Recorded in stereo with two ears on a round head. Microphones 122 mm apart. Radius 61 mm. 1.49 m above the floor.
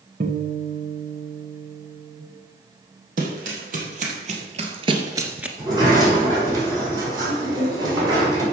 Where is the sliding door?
30° right (ahead or behind), 5.5 m.